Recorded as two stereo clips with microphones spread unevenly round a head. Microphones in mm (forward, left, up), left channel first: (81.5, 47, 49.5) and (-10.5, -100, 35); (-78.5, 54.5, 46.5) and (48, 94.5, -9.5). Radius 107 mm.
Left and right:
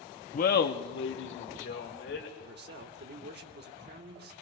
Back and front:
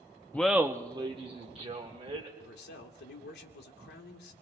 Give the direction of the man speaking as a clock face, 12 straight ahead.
5 o'clock.